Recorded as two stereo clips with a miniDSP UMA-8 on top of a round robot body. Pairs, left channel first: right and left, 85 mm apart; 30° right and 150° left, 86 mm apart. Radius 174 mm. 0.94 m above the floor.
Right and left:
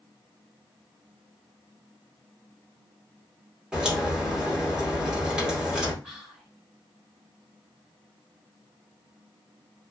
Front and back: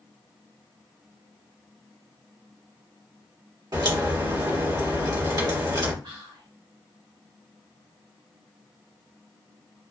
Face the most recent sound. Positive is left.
turn(degrees=170)